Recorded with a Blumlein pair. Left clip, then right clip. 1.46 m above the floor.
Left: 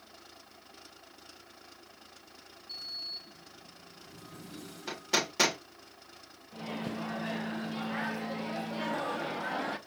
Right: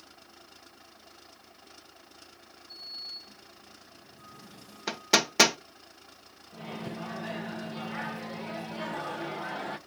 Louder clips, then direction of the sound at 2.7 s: Left 1 dB; 45° left.